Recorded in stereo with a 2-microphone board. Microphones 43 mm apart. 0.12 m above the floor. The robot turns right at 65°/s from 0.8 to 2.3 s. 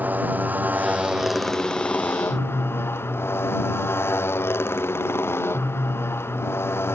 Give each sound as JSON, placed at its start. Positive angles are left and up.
{"t": 0.0, "sound": "a motorcycle", "side_deg": -40}